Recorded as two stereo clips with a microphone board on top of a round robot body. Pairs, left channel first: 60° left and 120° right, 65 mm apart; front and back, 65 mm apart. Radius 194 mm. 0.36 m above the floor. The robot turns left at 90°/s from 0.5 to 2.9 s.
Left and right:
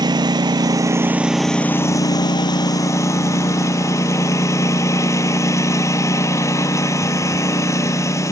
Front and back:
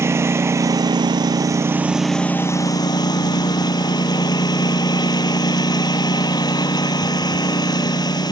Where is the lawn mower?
130° right; by 8.3 s 15° left.